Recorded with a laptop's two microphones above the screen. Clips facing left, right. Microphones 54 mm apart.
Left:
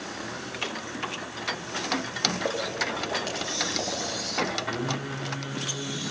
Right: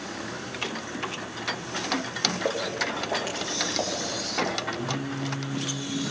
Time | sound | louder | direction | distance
2.5 | footsteps | right 1 dB | 10° right (ahead or behind) | 6 m
4.7 | singing | even | 75° left (ahead or behind) | 3.5 m